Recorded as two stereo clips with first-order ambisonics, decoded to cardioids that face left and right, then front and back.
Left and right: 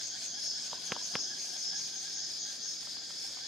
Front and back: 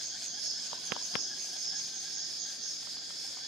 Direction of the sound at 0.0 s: 145° left.